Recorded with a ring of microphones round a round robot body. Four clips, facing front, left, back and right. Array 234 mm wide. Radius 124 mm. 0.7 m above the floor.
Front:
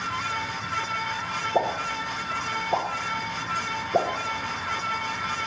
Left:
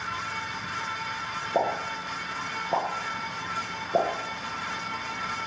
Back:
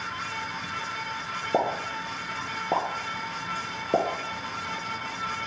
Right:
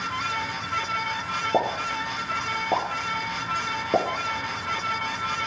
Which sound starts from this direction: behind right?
A pop, at 1.5 s.